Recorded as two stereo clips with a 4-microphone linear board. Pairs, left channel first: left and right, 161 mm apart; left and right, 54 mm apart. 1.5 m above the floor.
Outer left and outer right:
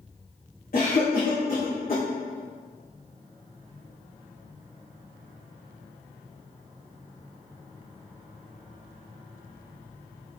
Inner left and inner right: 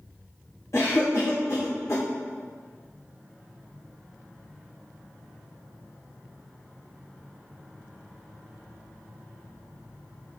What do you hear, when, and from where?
0.7 s a cough: 70° left (ahead or behind), 1.0 m